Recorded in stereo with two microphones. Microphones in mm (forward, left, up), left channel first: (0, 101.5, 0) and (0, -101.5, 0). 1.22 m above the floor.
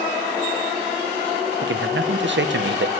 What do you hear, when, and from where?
1.6 s a man speaking: 65° right (ahead or behind), 1.0 m